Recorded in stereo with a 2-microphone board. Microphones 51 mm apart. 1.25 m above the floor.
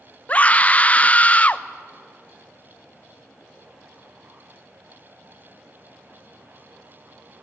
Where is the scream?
30° left (ahead or behind), 0.6 m.